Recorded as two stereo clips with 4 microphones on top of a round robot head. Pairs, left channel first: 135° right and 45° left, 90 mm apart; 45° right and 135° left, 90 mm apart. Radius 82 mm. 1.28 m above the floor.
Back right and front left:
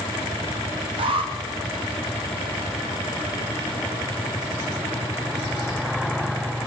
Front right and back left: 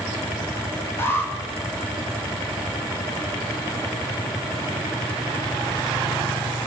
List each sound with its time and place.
1.0 s an alarm: 20° left, 3 m